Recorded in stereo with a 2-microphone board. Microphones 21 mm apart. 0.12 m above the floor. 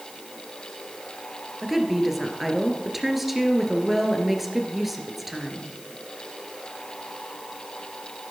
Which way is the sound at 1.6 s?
5° right (ahead or behind).